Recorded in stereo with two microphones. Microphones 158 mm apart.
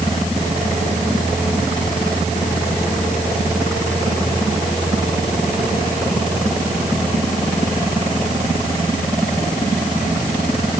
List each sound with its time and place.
Only background noise.